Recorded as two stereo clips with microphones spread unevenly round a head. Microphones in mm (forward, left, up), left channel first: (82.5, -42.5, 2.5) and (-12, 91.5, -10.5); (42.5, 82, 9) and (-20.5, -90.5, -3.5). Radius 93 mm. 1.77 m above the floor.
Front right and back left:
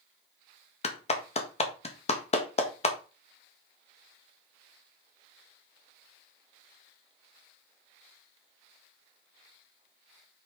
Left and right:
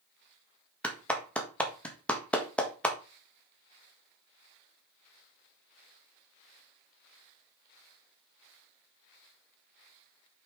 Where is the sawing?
I don't hear sawing.